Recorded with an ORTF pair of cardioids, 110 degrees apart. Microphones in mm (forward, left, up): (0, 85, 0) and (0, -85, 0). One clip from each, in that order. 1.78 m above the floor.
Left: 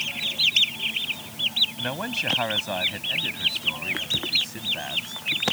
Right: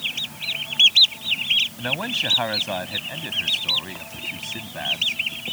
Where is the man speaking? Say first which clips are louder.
Right 3 dB; 10° right; by 5.2 s 15° right.